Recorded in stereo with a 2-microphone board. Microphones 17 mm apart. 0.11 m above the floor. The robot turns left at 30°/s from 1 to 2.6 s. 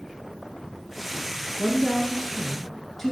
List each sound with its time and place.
1.6 s a woman speaking: 160° left, 1.3 m; by 3.1 s 130° left, 1.3 m